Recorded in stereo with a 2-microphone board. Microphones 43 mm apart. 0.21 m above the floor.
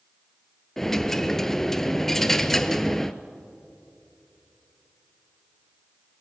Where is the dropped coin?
10° left (ahead or behind), 0.6 m.